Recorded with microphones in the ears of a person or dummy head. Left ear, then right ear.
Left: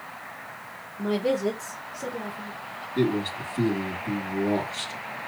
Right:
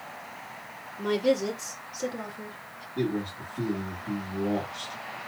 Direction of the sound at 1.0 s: 60° right (ahead or behind).